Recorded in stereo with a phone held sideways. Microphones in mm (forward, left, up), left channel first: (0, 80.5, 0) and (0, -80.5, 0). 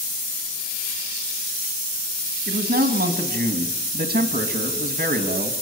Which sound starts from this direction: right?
A man speaking, at 2.5 s.